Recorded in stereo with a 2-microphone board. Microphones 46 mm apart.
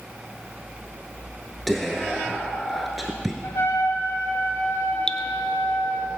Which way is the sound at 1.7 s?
Centre (ahead or behind).